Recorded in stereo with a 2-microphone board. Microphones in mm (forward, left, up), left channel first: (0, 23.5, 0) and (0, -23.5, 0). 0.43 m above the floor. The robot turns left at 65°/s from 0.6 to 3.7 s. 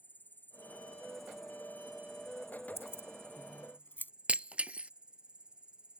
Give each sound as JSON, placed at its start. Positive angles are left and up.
{"t": 0.0, "sound": "an insect", "azimuth_deg": 45}
{"t": 2.8, "sound": "keys jangling", "side_deg": 65}
{"t": 4.3, "sound": "breaking glass", "side_deg": -30}